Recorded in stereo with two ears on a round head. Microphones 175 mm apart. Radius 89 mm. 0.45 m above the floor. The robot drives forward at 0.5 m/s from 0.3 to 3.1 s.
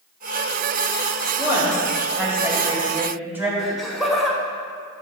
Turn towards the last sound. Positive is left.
turn(degrees=0)  # may be behind; listen again after turning